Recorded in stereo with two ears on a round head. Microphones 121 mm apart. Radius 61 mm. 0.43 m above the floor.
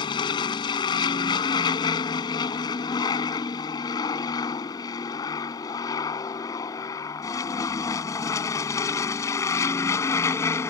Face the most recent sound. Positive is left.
turn(degrees=20)  # may be behind; listen again after turning